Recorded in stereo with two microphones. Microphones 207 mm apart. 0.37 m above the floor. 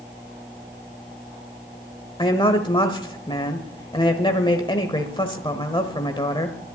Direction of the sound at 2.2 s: 25° left (ahead or behind).